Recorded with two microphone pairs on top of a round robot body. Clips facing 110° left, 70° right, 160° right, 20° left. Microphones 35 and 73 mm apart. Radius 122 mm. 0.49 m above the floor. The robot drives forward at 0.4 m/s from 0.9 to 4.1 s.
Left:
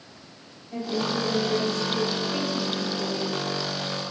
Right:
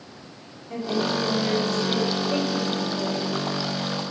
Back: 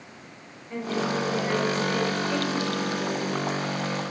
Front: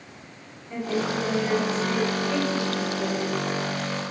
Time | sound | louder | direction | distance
0.7 | a woman speaking | right 2 dB, front 1 dB | 75° right | 3 m